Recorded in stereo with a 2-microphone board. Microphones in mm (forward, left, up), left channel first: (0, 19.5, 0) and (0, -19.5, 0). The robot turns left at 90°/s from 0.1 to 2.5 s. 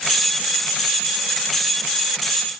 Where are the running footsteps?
I don't hear running footsteps.